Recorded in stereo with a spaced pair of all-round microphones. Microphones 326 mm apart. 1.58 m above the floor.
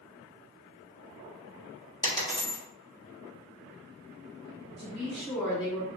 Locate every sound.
2.0 s a dropped coin: 10° left (ahead or behind), 1.1 m
4.8 s a woman speaking: 70° right (ahead or behind), 1.7 m